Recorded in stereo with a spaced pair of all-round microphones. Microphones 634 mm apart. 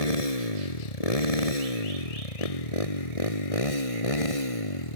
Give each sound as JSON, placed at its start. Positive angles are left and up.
{"t": 0.0, "sound": "a motorcycle", "side_deg": 70}